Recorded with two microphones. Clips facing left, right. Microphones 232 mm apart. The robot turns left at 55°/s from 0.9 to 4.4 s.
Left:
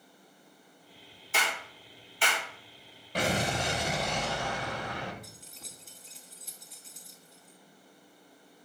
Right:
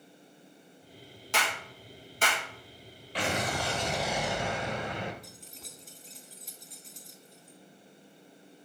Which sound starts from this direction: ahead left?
An explosion, at 3.1 s.